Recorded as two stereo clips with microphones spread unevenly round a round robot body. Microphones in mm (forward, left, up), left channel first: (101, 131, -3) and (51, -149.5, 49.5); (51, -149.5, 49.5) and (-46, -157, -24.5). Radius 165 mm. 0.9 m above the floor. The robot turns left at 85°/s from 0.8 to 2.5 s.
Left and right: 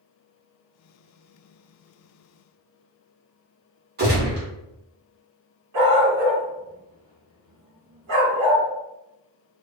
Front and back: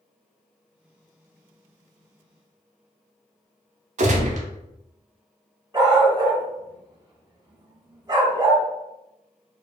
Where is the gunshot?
160° right, 0.7 m.